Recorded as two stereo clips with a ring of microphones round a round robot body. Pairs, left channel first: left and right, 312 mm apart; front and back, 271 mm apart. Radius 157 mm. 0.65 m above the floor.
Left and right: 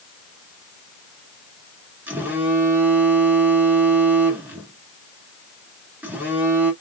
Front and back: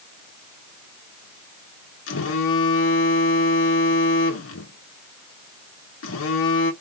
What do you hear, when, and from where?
2.1 s a phone buzzing: 5° right, 1.0 m